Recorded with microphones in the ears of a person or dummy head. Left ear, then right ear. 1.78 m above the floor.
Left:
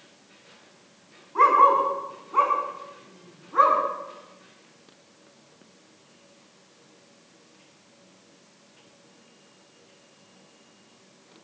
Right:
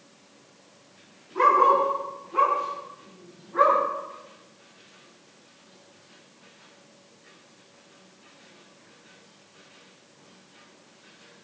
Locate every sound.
1.4 s a dog barking: 45° left (ahead or behind), 5 m; by 3.8 s 65° left (ahead or behind), 5.5 m